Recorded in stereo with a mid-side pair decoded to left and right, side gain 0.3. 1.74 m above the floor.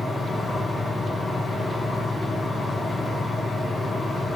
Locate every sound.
0.0 s a fan: 70° left, 2.0 m